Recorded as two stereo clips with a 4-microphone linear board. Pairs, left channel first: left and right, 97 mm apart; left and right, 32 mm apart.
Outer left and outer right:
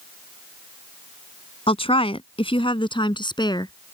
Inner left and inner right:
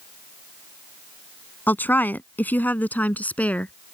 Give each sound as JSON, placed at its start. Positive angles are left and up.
{"t": 1.7, "sound": "a woman speaking", "side_deg": 75}